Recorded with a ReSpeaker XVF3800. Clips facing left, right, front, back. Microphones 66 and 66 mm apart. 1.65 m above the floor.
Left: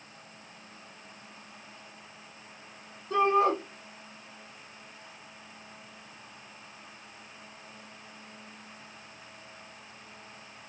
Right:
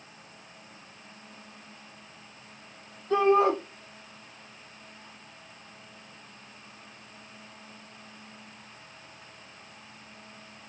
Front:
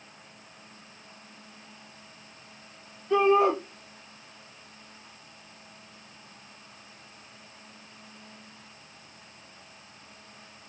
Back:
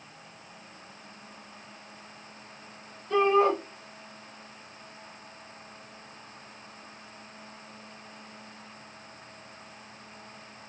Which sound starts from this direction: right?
A shout, at 3.1 s.